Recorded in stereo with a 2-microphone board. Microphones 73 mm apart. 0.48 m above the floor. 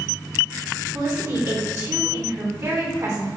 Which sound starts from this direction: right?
A woman speaking, at 0.9 s.